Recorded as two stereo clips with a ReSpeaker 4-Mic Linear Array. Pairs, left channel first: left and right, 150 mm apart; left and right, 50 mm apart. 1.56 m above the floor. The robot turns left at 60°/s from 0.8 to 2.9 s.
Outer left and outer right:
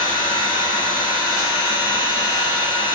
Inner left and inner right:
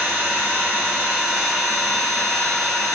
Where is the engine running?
140° right, 1.7 m; by 3.0 s 95° left, 1.7 m.